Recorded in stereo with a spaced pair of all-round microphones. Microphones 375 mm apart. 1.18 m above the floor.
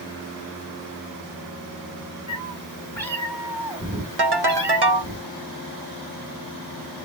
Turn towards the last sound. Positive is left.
turn(degrees=-75)  # may be behind; listen again after turning